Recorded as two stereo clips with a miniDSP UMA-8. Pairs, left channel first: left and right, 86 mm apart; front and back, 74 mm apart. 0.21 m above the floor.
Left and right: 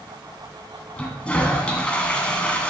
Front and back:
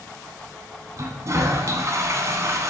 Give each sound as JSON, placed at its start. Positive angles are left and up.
{"t": 1.0, "sound": "a toilet flushing", "azimuth_deg": 160, "distance_m": 1.7}